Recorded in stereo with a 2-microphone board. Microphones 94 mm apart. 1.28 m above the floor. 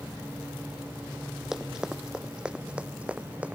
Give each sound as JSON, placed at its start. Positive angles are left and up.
{"t": 1.5, "sound": "running footsteps", "side_deg": -5}